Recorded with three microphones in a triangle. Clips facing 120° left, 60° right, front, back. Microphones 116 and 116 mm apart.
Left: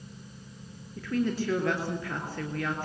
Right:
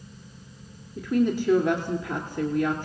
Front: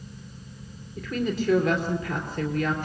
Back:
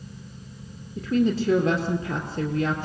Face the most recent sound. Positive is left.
turn(degrees=-130)